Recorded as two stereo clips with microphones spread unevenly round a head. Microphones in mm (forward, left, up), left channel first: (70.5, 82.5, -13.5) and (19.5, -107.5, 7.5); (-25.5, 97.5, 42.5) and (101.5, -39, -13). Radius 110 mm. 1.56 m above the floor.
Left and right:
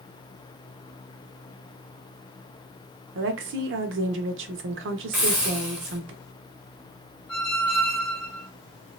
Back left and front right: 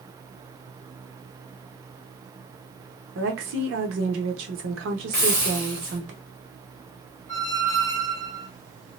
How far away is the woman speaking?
About 0.8 m.